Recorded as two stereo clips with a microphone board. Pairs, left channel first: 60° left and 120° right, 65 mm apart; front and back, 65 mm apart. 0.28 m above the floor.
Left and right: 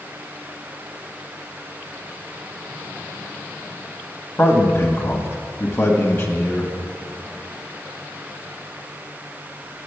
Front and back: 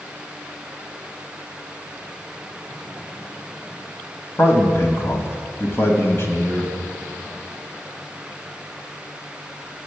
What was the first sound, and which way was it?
A man speaking, 30° left.